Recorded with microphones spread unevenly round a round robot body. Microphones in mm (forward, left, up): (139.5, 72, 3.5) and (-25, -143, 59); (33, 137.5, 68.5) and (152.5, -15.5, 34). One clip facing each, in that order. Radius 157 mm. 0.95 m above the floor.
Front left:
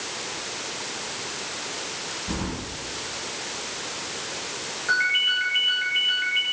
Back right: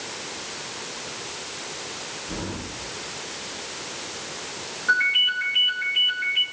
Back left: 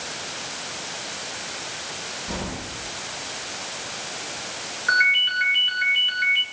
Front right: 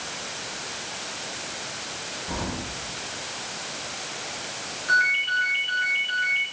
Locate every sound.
2.3 s keys jangling: 60° left, 6.5 m
4.9 s a ringtone: 155° left, 6 m